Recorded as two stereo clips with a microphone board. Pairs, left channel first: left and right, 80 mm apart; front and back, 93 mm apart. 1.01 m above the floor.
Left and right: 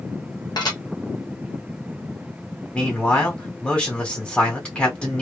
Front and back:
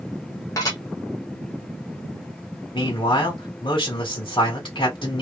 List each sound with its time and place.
0.6 s dishes clattering: 55° left, 1.0 m
2.7 s a man speaking: 15° left, 1.5 m